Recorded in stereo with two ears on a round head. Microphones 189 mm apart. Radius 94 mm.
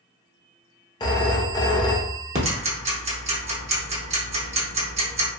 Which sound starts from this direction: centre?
A phone ringing, at 1.0 s.